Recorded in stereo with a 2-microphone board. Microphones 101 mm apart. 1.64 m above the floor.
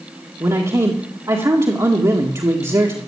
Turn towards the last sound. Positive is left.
turn(degrees=-35)  # may be behind; listen again after turning